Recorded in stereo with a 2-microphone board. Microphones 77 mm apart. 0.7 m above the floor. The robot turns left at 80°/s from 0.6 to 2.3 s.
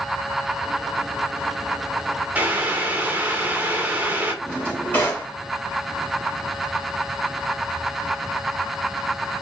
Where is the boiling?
20° right (ahead or behind), 0.9 m.